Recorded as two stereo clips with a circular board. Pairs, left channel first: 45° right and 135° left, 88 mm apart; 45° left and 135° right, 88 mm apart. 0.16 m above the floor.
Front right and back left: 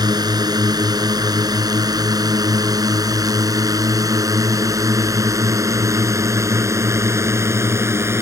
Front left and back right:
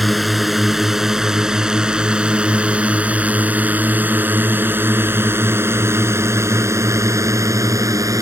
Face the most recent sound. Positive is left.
turn(degrees=-175)